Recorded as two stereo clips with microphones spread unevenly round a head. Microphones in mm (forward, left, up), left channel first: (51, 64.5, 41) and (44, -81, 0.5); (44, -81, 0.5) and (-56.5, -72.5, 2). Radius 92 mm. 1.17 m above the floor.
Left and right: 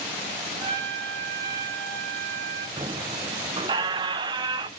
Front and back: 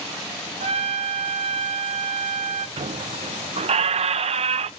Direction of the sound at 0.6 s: 165° right.